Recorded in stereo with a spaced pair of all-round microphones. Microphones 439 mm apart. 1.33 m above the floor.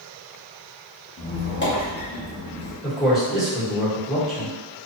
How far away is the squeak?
About 0.9 m.